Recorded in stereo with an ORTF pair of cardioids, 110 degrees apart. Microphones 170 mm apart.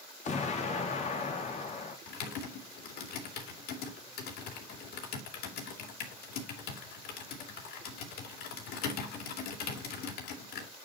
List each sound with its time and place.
0.2 s an explosion: 45° left, 3 m
2.1 s typing on a keyboard: 70° left, 3.5 m